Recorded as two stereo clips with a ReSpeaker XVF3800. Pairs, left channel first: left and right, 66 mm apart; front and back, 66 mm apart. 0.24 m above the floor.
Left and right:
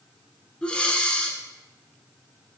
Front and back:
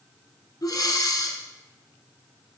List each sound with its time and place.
0.6 s breathing: 20° left, 0.6 m